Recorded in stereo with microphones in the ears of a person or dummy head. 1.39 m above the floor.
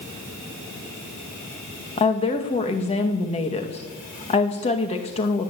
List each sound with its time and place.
2.0 s a woman speaking: 25° left (ahead or behind), 2 m